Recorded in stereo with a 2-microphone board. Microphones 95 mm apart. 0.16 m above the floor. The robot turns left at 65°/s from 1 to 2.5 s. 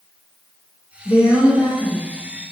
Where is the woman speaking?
160° right, 1.5 m; by 2.0 s 135° left, 1.5 m.